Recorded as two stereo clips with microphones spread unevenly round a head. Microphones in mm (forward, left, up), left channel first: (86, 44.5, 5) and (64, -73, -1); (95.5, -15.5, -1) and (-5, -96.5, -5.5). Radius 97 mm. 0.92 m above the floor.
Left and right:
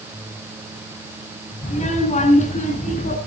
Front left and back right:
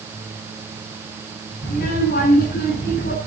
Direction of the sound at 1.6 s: 60° left.